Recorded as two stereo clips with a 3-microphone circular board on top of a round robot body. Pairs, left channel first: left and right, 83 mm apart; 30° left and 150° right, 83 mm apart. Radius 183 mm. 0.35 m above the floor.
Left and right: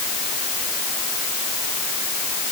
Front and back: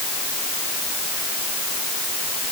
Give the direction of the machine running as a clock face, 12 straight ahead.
No machine running in this recording.